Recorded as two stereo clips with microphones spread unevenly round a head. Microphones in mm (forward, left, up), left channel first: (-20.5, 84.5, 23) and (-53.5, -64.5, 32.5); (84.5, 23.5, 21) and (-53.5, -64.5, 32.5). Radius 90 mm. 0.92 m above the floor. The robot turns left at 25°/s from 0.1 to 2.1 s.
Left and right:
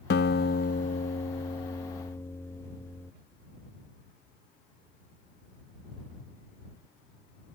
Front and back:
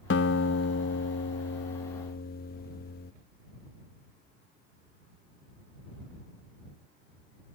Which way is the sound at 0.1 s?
50° left.